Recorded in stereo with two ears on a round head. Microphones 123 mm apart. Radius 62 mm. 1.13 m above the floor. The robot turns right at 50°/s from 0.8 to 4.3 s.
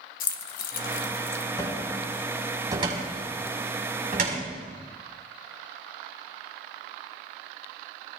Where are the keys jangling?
70° left (ahead or behind), 1.2 m; by 1.4 s 40° left (ahead or behind), 1.2 m.